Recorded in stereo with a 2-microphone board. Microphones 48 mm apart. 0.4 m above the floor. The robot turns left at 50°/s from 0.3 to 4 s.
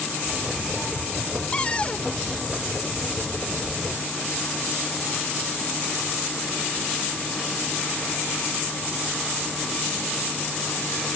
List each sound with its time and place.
1.5 s a cupboard door: 25° left (ahead or behind); by 2.1 s 30° left (ahead or behind)